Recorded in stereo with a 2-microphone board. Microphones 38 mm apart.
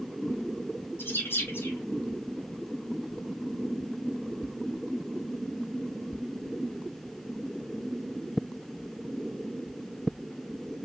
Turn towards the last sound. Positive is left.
turn(degrees=80)